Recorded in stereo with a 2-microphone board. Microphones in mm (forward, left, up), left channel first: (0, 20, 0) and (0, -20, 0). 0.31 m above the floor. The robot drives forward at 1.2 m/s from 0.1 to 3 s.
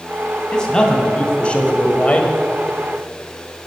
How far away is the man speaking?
About 2.5 m.